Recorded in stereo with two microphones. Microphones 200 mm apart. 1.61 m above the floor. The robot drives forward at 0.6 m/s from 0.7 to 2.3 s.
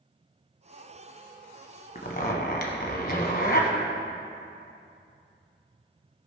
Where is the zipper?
45° left (ahead or behind), 1.2 m; by 3.7 s 50° left (ahead or behind), 1.0 m.